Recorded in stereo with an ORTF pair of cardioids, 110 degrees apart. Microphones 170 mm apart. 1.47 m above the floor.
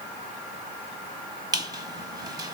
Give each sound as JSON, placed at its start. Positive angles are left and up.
{"t": 1.5, "sound": "a squeak", "azimuth_deg": -25, "distance_m": 1.0}